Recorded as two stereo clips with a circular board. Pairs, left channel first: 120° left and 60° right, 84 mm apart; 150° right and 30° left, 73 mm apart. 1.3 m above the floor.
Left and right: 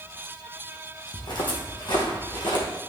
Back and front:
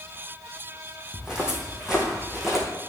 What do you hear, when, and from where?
1.1 s footsteps: 110° left, 3 m; by 2.6 s 120° left, 3.5 m